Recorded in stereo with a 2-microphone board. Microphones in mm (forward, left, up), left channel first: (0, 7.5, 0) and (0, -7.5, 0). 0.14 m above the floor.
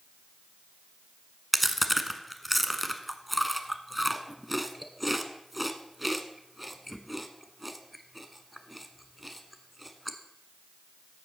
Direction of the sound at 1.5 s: Centre (ahead or behind).